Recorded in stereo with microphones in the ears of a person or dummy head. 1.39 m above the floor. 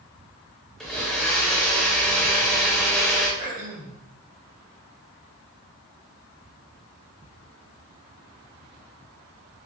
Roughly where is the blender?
Centre.